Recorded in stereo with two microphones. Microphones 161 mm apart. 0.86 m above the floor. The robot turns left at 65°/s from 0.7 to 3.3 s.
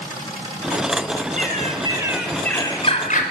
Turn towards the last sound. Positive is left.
turn(degrees=115)